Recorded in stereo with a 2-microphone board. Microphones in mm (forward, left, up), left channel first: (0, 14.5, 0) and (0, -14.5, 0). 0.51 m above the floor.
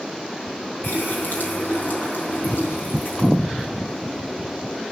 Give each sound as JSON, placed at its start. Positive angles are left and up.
{"t": 0.8, "sound": "a running tap", "side_deg": 80, "distance_m": 4.0}